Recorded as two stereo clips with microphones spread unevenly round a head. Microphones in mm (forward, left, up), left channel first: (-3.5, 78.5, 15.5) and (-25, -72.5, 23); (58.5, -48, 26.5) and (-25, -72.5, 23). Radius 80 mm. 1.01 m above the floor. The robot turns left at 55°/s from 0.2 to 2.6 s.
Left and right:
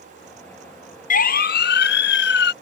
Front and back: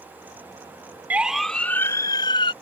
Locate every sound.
1.1 s a siren: 120° left; by 2.5 s 70° left